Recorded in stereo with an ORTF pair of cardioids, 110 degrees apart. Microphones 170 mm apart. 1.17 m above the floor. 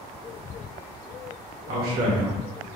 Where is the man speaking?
65° right, 1.2 m.